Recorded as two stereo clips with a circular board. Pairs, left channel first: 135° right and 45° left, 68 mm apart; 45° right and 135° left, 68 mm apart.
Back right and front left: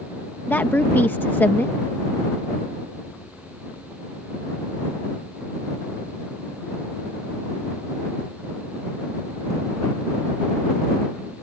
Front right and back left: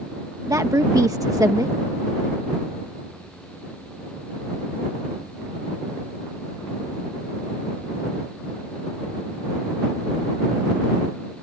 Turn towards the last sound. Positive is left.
turn(degrees=165)